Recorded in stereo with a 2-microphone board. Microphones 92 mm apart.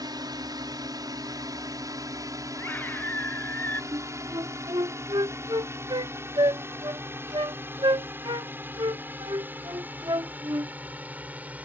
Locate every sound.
0.0 s a drone: 50° right (ahead or behind); by 11.7 s 15° right (ahead or behind)
2.6 s a scream: 20° left (ahead or behind)
3.9 s a flute: 55° right (ahead or behind)